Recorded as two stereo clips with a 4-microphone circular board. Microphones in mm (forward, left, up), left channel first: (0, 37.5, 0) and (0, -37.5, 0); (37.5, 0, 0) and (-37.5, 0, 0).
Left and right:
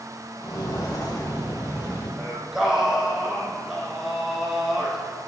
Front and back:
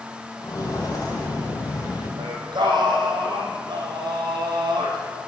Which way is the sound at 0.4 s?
45° left.